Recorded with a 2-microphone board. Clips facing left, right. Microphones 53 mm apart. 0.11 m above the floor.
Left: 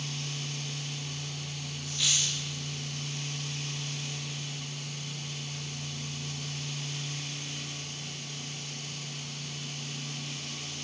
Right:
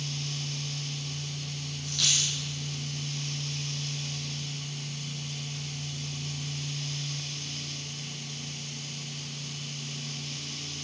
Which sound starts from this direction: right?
A dropped coin, at 1.8 s.